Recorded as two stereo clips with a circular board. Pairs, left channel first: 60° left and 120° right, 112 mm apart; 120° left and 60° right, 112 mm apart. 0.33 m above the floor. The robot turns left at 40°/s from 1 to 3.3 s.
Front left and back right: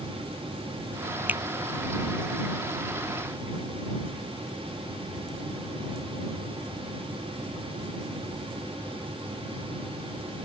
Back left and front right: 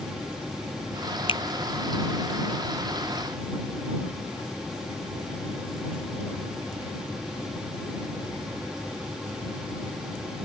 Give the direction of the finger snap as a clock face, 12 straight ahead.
7 o'clock.